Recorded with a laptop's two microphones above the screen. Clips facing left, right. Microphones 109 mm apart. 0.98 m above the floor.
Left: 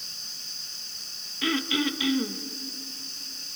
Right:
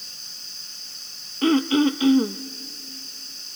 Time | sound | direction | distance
1.4 | throat clearing | 40° right (ahead or behind) | 0.6 m